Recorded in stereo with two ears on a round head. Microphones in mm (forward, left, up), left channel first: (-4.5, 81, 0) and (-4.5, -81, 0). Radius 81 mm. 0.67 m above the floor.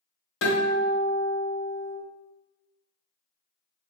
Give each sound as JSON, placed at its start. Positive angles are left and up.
{"t": 0.4, "sound": "a guitar", "side_deg": 75, "distance_m": 1.8}